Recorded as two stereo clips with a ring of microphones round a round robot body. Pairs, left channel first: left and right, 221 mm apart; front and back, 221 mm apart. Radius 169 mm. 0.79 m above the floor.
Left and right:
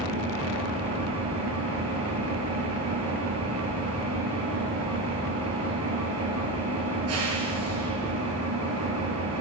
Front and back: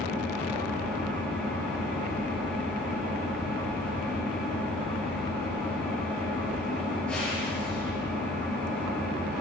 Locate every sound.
0.0 s an engine running: 85° right, 7.5 m